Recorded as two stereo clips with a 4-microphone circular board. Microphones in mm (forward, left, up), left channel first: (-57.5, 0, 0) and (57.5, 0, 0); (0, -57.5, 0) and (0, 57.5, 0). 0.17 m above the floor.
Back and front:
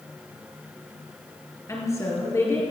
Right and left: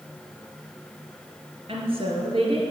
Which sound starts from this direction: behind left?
A woman speaking, at 1.7 s.